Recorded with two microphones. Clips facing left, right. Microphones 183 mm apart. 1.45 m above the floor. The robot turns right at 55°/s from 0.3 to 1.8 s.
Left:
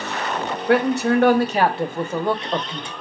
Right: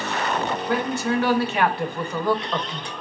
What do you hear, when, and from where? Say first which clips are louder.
0.7 s a man speaking: left 8 dB; 95° left, 0.7 m; by 2.9 s 155° left, 0.7 m